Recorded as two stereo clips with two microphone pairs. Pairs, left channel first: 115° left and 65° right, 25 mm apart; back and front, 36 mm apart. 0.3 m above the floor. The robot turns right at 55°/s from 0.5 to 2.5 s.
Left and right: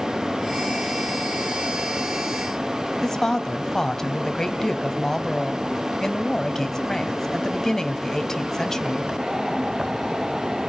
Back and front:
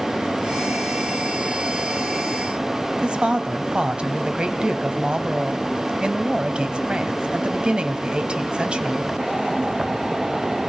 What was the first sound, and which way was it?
A woman speaking, 55° left.